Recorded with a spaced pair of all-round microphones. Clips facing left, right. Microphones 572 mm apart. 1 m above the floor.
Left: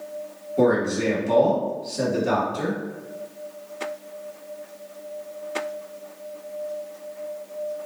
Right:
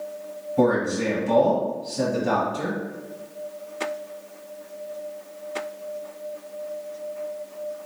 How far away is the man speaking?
About 1.3 m.